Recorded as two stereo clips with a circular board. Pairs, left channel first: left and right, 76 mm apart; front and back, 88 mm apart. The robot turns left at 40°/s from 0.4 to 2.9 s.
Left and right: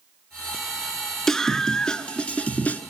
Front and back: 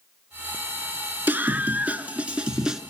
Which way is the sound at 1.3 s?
170° left.